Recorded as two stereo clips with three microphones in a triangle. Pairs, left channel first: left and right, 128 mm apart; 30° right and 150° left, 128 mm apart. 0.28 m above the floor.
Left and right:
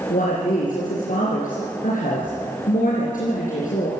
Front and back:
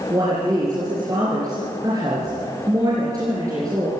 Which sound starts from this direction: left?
A woman speaking, at 0.1 s.